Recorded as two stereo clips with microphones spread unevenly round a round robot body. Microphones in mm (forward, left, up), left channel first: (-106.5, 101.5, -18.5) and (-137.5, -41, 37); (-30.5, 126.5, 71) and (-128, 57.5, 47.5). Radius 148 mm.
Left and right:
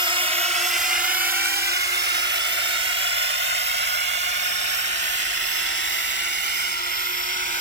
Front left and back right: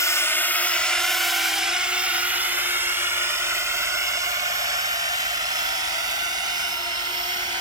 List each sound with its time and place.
0.0 s a drone: 25° right; by 7.6 s 85° right